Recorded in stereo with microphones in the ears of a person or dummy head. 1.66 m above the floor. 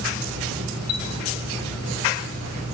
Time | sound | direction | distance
0.9 | a chime | 30° left (ahead or behind) | 0.9 m